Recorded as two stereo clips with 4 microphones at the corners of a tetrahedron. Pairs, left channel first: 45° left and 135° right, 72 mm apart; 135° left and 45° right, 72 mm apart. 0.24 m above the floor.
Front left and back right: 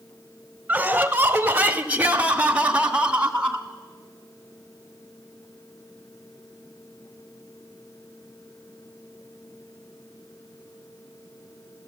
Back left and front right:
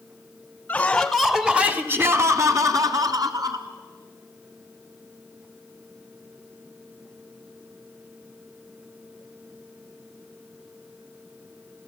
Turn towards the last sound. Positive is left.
turn(degrees=-60)